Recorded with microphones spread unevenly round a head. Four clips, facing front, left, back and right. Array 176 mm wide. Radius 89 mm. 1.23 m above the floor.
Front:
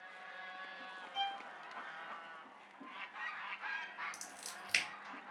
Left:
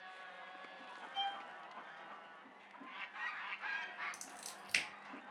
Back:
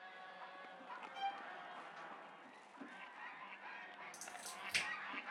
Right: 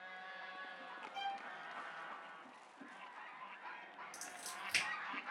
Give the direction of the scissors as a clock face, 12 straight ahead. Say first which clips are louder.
Right 3 dB, even; 11 o'clock.